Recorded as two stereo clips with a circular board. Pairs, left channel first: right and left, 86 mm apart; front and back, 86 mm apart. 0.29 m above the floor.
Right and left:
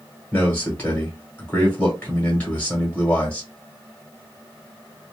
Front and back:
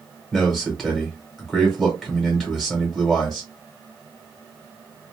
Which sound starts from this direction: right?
A man speaking, at 0.3 s.